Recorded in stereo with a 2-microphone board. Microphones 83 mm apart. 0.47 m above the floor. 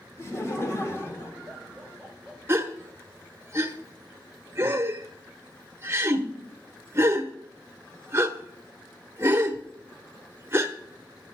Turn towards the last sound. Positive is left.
turn(degrees=-30)  # may be behind; listen again after turning